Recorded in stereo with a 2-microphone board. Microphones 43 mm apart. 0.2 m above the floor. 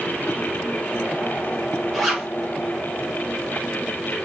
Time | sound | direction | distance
1.9 | a zipper | centre (ahead or behind) | 4 m